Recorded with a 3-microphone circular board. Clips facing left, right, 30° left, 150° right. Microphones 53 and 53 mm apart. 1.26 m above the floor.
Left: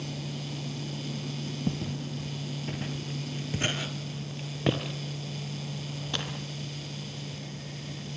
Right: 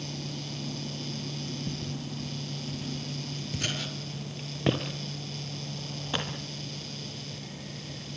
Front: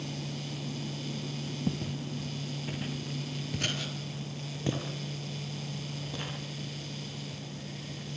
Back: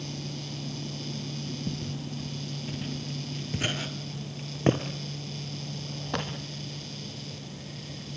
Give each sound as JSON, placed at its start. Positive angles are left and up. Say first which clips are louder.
{"t": 1.7, "sound": "footsteps", "louder": "left 3 dB, front 1 dB", "azimuth_deg": 65, "distance_m": 2.5}